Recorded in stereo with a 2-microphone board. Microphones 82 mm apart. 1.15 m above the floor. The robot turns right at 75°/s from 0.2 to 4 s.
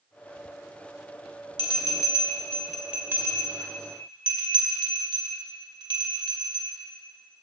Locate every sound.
1.6 s a bell: 75° left (ahead or behind), 2 m; by 6.7 s 75° right (ahead or behind), 2 m